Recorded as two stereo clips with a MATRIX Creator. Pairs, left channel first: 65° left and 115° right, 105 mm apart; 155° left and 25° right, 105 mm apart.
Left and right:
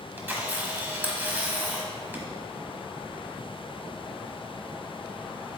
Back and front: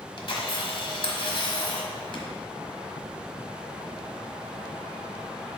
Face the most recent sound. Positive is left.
turn(degrees=180)